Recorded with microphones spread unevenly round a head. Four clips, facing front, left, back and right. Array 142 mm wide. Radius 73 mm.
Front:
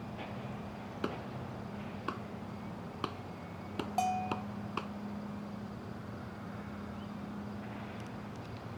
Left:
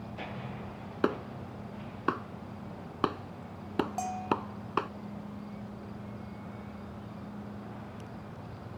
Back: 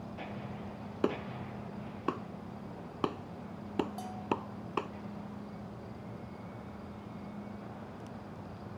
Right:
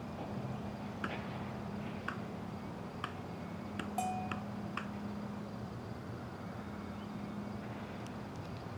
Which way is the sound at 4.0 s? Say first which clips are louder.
Left 5 dB, front 4 dB; 5° left.